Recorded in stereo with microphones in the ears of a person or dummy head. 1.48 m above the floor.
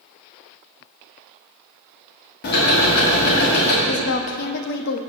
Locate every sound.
2.4 s ticking: 50° left (ahead or behind), 1.6 m
3.9 s a woman speaking: 50° left (ahead or behind), 0.6 m